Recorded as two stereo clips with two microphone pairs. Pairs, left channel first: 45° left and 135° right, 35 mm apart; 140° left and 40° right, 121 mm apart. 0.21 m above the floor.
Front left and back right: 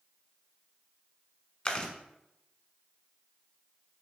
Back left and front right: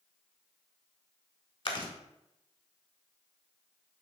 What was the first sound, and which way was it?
Chewing, 110° left.